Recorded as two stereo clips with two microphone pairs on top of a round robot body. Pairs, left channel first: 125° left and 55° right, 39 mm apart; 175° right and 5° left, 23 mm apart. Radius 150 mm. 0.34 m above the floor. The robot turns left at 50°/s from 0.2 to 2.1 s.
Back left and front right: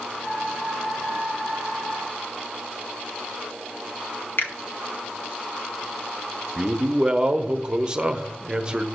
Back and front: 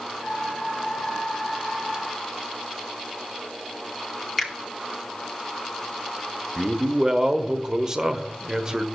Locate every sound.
4.4 s a finger snap: 95° left, 2.0 m
6.6 s a man speaking: 10° right, 1.0 m